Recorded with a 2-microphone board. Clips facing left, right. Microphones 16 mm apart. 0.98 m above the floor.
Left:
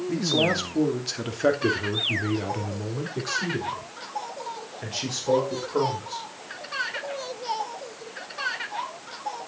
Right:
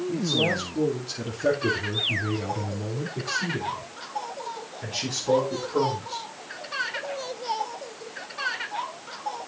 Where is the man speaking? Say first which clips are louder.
Left 2 dB; 70° left (ahead or behind), 3 m; by 6.2 s 20° left (ahead or behind), 6 m.